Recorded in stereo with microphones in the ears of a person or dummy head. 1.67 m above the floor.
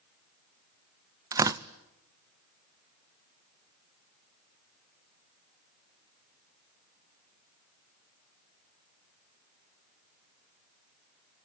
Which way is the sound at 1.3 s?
25° right (ahead or behind).